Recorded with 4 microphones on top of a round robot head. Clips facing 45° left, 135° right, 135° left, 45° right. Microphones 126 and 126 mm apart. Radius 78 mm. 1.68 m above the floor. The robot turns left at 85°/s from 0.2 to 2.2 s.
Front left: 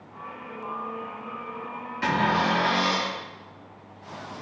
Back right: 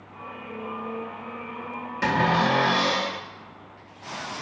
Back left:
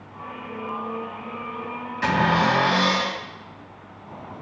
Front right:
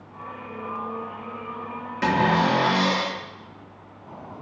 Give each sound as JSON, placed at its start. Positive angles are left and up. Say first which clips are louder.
{"t": 2.0, "sound": "a cupboard door", "louder": "back right 2 dB, even", "azimuth_deg": -90, "distance_m": 1.6}